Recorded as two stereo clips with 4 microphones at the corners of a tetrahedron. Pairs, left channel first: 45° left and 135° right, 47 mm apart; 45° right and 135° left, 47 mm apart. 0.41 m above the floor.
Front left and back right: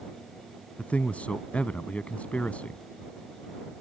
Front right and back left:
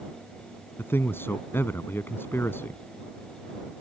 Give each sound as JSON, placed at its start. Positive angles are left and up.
{"t": 0.8, "sound": "a man speaking", "azimuth_deg": -15}